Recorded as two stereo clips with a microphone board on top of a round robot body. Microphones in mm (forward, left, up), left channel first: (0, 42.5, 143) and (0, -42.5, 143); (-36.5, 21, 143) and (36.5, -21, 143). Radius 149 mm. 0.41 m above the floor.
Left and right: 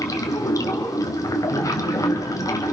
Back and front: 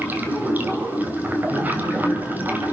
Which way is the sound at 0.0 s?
40° left.